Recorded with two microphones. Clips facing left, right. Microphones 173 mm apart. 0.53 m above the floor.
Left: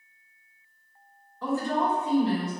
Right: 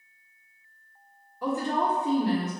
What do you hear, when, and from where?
1.4 s a woman speaking: 10° right (ahead or behind), 1.0 m; by 2.5 s 40° right (ahead or behind), 1.5 m